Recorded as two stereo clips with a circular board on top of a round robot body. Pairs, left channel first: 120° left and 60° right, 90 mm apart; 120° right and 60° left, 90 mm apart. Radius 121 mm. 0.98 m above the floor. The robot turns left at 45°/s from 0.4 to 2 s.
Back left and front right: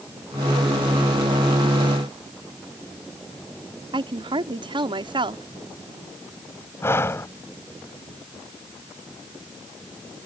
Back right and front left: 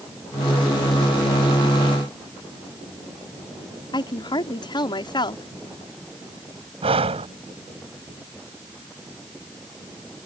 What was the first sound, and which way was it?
A woman speaking, 85° right.